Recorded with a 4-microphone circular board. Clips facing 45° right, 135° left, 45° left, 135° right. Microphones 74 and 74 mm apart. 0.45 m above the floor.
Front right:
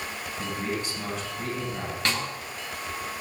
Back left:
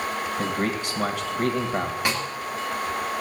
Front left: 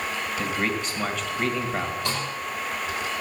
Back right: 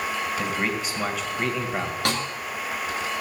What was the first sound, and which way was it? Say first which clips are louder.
A man speaking: back left 2 dB, even; 140° left.